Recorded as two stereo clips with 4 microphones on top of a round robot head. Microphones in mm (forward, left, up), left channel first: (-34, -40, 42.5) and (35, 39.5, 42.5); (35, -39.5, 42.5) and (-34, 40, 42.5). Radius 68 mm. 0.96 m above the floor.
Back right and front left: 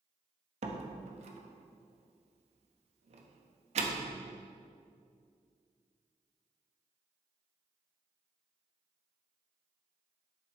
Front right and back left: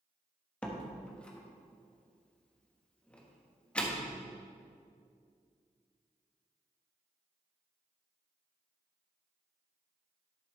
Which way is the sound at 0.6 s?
30° left.